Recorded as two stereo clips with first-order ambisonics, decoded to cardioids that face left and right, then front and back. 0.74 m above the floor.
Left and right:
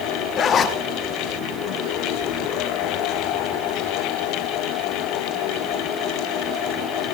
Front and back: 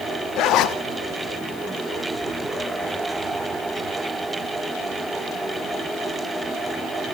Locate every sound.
0.4 s a zipper: 35° left, 0.9 m